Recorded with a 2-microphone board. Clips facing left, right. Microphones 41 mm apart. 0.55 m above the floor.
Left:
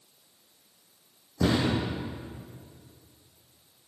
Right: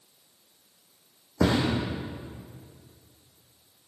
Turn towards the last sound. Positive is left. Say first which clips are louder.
# right 1 dB
turn(degrees=-75)  # may be behind; listen again after turning